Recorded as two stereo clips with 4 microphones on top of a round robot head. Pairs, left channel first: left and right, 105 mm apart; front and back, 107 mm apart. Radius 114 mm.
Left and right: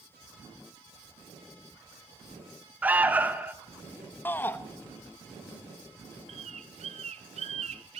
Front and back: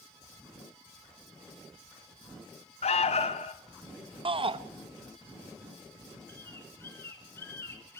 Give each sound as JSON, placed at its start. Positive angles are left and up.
{"t": 2.8, "sound": "an alarm", "azimuth_deg": -15, "distance_m": 1.9}
{"t": 4.2, "sound": "a shout", "azimuth_deg": 160, "distance_m": 0.9}
{"t": 6.3, "sound": "a bird", "azimuth_deg": -75, "distance_m": 1.2}